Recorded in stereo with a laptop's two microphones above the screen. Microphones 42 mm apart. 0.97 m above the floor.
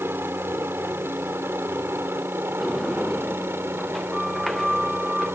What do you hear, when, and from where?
0.0 s a helicopter: 65° right (ahead or behind); by 5.3 s 70° right (ahead or behind)
2.6 s a sliding door: 5° left (ahead or behind)